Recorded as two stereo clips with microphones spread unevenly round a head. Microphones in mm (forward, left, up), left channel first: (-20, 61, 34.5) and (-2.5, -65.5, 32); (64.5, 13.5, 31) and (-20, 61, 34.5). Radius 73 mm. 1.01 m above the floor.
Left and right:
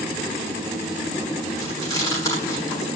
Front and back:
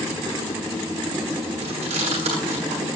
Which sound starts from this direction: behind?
Chewing, at 1.6 s.